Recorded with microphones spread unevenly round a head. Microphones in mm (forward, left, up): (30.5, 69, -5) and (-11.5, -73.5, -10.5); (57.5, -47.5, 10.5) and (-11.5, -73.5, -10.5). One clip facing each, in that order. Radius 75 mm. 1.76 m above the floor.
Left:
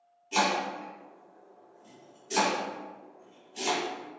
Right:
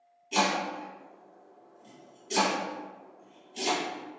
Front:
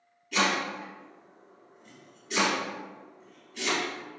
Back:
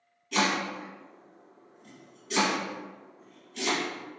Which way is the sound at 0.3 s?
165° left.